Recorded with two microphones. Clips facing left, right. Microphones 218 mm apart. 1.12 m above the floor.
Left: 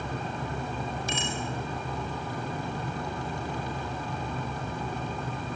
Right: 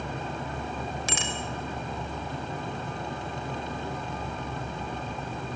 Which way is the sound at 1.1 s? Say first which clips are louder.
Left 1 dB; 85° right.